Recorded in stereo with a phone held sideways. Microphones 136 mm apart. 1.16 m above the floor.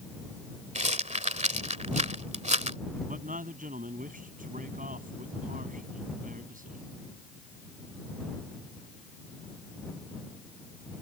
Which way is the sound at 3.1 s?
85° right.